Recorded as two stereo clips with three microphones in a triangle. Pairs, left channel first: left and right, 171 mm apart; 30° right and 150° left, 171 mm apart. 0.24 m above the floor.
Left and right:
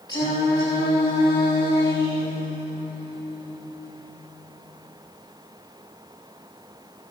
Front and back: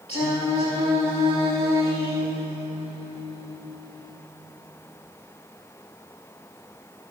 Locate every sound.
0.1 s singing: 20° left, 5.5 m